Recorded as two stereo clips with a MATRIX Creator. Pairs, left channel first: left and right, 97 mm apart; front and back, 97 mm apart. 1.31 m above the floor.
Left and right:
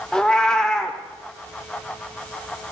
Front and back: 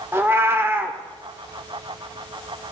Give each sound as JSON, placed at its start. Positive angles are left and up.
{"t": 0.1, "sound": "a cat meowing", "azimuth_deg": 165, "distance_m": 1.0}